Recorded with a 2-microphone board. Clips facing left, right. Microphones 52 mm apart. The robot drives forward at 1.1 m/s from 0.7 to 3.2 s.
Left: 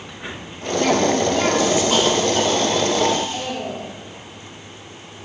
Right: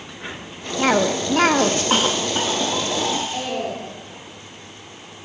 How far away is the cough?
About 1.0 m.